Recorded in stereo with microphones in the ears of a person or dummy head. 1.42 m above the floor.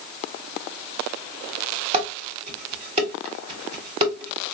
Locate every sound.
1.9 s dishes clattering: 25° right (ahead or behind), 0.9 m